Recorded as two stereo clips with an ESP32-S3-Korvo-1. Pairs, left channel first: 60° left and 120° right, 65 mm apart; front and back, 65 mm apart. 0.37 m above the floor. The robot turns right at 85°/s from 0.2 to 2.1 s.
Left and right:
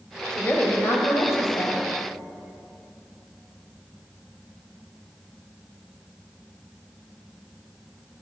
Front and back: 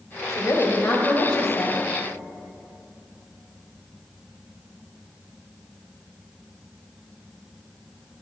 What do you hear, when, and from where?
0.3 s a woman speaking: 15° right, 1.8 m; by 1.9 s 125° left, 1.8 m